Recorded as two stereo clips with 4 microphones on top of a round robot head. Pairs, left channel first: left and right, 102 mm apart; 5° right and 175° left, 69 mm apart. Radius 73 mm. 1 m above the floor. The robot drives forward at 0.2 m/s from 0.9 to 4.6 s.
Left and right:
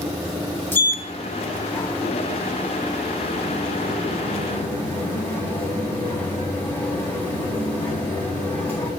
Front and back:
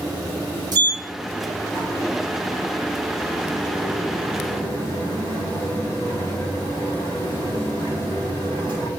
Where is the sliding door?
155° left, 2.5 m; by 8.9 s 160° left, 3 m.